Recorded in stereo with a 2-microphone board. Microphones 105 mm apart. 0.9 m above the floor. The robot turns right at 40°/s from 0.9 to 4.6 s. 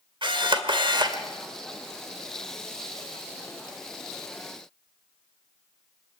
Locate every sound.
0.2 s a camera shutter: 50° right (ahead or behind), 1.9 m; by 1.2 s 40° right (ahead or behind), 1.9 m